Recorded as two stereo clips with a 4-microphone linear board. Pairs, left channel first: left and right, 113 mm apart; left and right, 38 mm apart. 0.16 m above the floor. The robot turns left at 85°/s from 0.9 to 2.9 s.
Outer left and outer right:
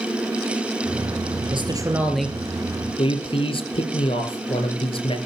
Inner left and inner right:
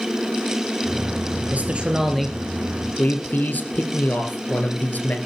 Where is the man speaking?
120° right, 2.5 m; by 5.2 s 120° left, 2.5 m.